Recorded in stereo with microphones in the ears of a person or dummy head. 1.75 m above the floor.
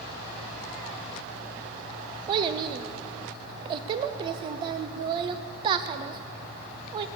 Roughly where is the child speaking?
Right.